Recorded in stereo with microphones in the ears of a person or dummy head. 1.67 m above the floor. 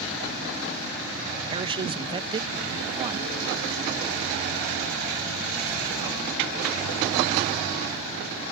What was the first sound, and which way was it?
A man speaking, 25° right (ahead or behind).